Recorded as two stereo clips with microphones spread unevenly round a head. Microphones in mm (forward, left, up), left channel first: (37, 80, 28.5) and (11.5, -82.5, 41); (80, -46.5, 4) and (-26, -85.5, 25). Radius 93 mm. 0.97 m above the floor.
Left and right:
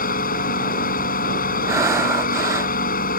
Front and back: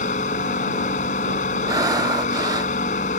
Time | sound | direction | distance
0.0 | a machine running | 50° left | ?
1.7 | breathing | 150° right | ?